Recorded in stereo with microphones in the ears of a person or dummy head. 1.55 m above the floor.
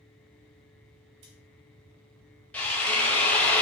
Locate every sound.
1.2 s scissors: 25° right (ahead or behind), 0.5 m
2.5 s a drill: 10° left (ahead or behind), 0.5 m